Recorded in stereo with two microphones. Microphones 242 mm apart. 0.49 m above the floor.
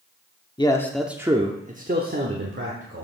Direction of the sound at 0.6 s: 20° left (ahead or behind).